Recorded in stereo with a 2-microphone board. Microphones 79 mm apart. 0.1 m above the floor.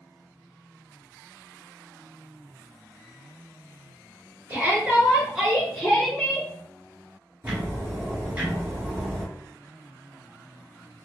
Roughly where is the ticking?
Centre.